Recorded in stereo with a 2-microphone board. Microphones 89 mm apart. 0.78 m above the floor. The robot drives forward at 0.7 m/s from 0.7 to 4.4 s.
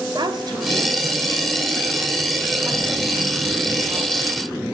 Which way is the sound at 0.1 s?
55° right (ahead or behind).